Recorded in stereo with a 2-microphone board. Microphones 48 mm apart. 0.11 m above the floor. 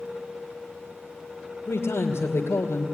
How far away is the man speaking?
About 2.5 m.